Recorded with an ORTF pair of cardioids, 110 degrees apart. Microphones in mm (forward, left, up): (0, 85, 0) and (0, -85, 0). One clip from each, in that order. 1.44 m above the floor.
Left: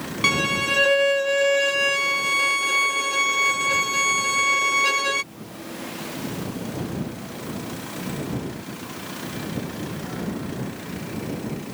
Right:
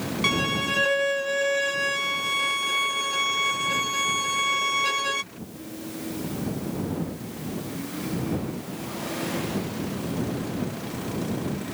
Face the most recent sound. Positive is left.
turn(degrees=25)